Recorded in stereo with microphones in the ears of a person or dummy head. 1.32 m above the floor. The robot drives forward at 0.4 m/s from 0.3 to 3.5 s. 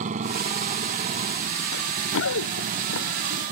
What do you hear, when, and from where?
0.0 s a motorcycle: 40° right (ahead or behind); by 3.5 s 45° right (ahead or behind)
1.7 s running footsteps: 65° left (ahead or behind); by 3.5 s 70° left (ahead or behind)